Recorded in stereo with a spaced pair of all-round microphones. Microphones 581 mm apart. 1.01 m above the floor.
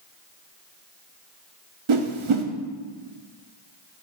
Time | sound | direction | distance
1.9 | a whoosh | 55° right (ahead or behind) | 0.6 m